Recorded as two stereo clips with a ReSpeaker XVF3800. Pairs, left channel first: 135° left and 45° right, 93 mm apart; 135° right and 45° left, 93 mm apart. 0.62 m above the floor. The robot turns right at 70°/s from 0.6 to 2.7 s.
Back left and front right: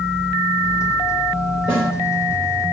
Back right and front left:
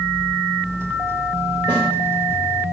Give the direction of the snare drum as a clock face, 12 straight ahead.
7 o'clock.